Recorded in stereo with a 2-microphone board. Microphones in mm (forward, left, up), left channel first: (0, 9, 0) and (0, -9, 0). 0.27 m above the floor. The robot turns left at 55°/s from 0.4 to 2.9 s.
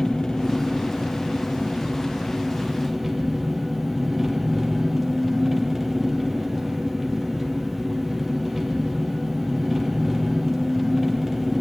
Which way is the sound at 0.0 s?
135° left.